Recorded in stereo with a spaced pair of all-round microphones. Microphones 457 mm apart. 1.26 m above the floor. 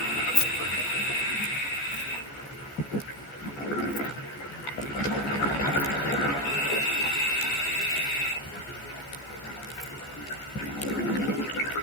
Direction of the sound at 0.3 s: 60° left (ahead or behind).